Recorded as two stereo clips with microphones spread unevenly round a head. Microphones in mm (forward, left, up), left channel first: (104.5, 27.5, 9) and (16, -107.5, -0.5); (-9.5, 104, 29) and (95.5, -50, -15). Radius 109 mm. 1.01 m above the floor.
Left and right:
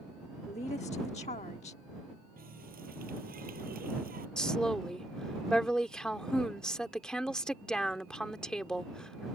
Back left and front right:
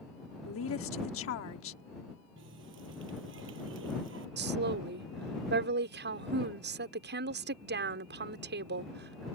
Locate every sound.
0.5 s a woman speaking: 120° left
2.4 s a running tap: 95° right
4.4 s a woman speaking: 30° right